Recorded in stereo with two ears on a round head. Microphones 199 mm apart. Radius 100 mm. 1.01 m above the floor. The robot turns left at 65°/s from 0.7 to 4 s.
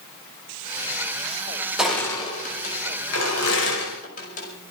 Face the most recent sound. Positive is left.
turn(degrees=40)  # may be behind; listen again after turning